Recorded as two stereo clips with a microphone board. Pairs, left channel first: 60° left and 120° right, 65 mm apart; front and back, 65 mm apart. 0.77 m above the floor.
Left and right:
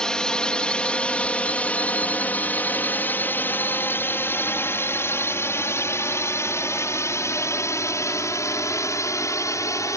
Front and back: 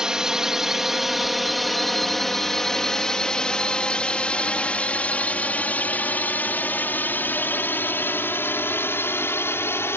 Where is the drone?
115° left; by 10.0 s 40° left.